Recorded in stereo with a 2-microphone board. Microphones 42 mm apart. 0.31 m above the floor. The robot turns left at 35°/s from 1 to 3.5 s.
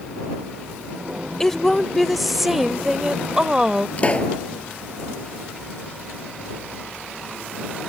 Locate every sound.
1.4 s a woman speaking: 10° left (ahead or behind); by 3.9 s 15° right (ahead or behind)
4.0 s a pop: 30° left (ahead or behind)